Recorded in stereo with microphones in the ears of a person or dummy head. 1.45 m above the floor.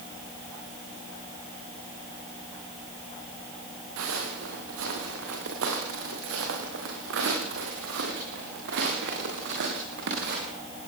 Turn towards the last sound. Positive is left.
turn(degrees=-65)  # may be behind; listen again after turning